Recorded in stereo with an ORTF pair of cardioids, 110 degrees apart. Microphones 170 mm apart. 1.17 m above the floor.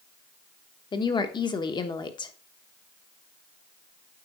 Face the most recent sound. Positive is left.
turn(degrees=25)